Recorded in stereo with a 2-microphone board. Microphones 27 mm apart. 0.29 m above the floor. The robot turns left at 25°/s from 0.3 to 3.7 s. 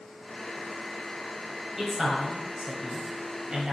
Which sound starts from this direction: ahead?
A man speaking, at 1.8 s.